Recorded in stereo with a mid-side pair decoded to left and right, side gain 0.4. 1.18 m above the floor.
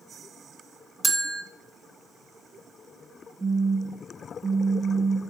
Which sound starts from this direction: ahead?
A phone buzzing, at 3.4 s.